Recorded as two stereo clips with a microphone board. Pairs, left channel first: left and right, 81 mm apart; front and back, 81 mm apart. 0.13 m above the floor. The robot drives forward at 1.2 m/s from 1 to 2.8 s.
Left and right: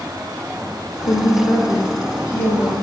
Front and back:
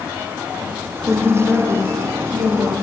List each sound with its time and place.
1.1 s a woman speaking: 110° left, 3 m; by 2.7 s 135° left, 4 m